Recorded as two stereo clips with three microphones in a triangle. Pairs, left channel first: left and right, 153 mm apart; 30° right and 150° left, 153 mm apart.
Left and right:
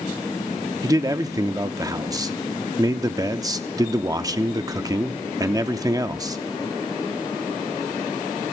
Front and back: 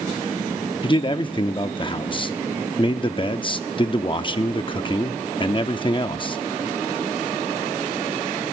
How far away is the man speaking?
About 0.6 m.